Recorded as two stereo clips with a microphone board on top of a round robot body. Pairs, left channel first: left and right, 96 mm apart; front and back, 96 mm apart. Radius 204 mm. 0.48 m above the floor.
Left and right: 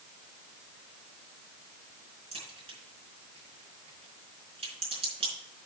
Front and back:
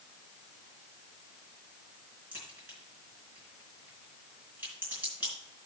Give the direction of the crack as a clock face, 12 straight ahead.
4 o'clock.